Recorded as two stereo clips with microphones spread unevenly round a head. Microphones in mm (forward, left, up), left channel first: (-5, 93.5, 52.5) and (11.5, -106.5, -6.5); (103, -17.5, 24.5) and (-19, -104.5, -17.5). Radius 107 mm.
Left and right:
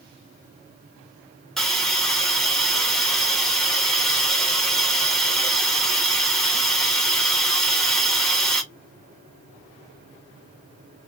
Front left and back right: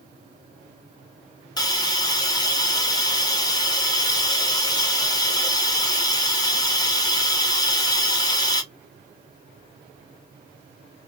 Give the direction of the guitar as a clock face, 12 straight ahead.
No guitar in this recording.